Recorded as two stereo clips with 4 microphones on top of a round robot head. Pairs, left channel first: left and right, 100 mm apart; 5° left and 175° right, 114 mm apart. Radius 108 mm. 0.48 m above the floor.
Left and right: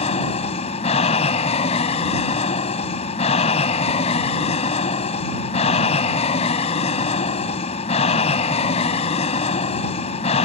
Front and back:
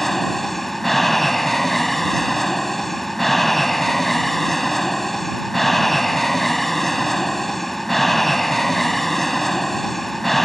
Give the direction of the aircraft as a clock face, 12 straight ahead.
9 o'clock.